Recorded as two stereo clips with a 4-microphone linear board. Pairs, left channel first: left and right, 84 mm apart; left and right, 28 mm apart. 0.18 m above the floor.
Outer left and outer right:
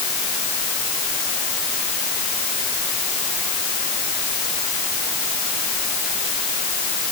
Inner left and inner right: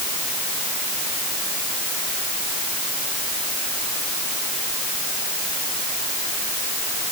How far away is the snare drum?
I don't hear a snare drum.